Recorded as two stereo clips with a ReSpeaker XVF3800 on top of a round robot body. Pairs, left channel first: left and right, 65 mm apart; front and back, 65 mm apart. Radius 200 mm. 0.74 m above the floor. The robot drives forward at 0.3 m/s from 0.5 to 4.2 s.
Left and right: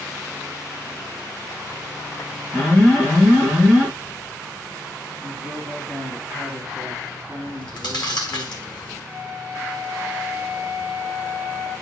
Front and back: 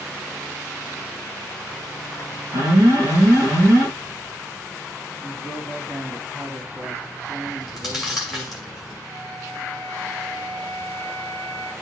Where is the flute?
150° left, 7.5 m.